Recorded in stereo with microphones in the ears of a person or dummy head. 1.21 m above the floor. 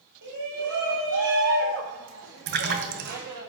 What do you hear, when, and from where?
0.2 s a shout: 70° right (ahead or behind), 9 m; by 3.5 s 60° right (ahead or behind), 6 m
2.5 s a splash: 60° right (ahead or behind), 2 m